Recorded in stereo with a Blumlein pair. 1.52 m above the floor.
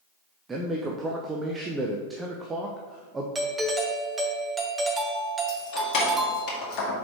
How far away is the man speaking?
About 0.7 m.